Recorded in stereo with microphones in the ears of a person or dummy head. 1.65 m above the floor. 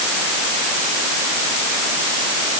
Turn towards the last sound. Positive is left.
No sound to turn to.